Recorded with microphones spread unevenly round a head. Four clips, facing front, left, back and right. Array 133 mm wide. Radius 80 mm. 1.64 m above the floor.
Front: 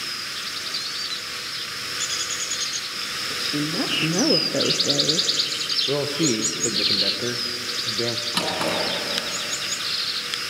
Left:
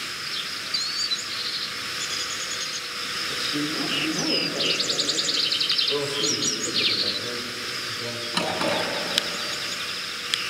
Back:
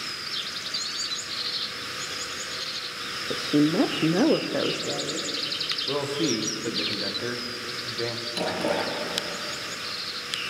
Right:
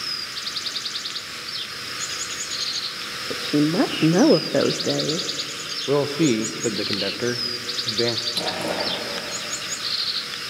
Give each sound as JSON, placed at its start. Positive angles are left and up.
{"t": 3.3, "sound": "a woman speaking", "azimuth_deg": -135, "distance_m": 1.1}
{"t": 5.9, "sound": "a man speaking", "azimuth_deg": -75, "distance_m": 1.2}
{"t": 8.3, "sound": "a drawer", "azimuth_deg": 35, "distance_m": 7.5}